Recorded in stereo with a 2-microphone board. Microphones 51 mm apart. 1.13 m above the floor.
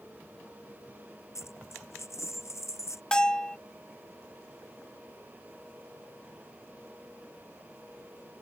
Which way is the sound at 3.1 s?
15° left (ahead or behind).